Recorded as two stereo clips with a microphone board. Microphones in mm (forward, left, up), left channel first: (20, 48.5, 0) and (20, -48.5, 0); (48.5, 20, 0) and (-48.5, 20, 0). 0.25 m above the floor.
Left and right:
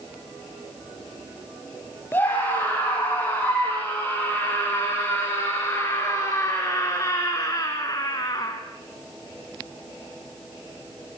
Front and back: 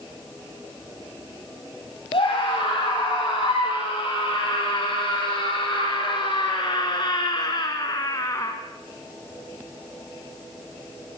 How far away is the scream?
About 8 m.